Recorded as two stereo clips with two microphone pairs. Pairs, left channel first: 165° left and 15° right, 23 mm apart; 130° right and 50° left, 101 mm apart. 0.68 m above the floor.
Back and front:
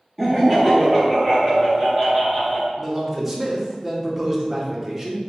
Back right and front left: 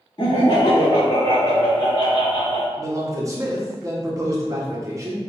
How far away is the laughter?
About 0.7 m.